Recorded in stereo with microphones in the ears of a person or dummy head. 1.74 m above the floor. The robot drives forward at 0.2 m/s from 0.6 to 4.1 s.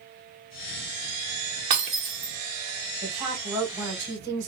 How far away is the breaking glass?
About 0.8 m.